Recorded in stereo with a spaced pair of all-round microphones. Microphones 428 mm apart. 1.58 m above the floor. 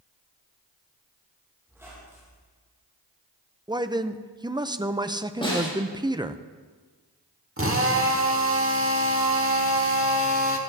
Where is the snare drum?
10° left (ahead or behind), 6 m.